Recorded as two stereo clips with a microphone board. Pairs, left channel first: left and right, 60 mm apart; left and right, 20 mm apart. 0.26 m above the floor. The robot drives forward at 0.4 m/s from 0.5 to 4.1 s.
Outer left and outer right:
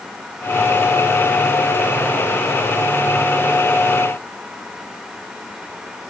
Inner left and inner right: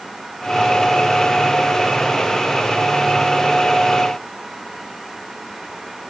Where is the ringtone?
No ringtone in this recording.